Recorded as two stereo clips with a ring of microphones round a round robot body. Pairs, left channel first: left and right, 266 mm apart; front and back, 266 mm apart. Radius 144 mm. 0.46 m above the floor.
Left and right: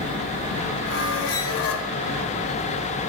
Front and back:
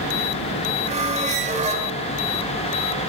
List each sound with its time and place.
0.9 s a squeak: 120° left, 1.5 m